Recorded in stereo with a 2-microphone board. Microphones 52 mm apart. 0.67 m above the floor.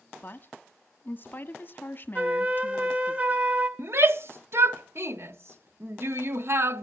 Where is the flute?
25° right (ahead or behind), 2 m.